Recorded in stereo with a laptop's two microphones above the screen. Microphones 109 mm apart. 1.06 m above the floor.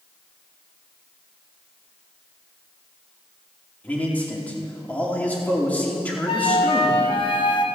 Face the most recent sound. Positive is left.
turn(degrees=50)  # may be behind; listen again after turning